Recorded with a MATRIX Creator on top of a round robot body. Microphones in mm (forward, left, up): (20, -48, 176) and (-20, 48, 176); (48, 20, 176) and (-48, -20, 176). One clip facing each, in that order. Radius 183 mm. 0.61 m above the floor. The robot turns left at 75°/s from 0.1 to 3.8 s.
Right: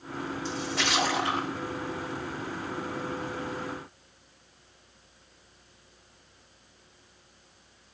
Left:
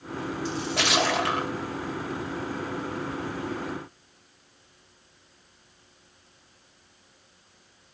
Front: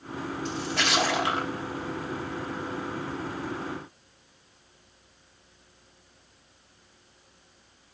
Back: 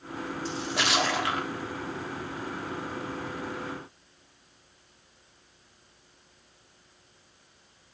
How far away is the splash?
About 3 m.